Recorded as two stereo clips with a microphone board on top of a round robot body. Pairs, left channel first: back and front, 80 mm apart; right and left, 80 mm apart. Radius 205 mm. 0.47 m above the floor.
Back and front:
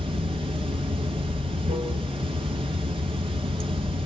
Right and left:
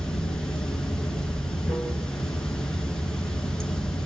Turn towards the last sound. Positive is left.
turn(degrees=-5)